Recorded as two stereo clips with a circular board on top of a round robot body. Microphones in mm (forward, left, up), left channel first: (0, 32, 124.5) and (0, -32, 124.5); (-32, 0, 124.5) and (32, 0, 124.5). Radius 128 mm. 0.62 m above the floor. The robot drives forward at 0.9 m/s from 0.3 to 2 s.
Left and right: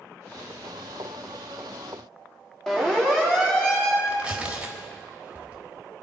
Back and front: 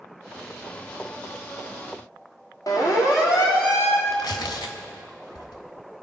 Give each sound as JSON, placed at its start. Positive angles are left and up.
{"t": 2.7, "sound": "a siren", "azimuth_deg": 170, "distance_m": 2.5}
{"t": 4.1, "sound": "tearing paper", "azimuth_deg": -165, "distance_m": 1.1}